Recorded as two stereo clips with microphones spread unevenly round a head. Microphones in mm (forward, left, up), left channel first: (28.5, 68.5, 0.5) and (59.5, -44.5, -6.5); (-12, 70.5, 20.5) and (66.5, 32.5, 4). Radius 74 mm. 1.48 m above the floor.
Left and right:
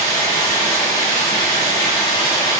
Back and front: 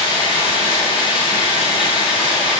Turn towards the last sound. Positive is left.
turn(degrees=170)